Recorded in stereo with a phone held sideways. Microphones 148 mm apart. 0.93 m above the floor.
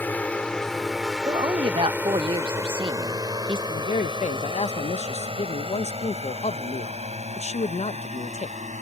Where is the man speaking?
50° left (ahead or behind).